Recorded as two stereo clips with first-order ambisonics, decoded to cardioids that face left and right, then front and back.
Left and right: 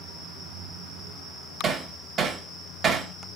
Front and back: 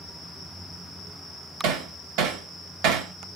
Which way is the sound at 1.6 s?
155° right.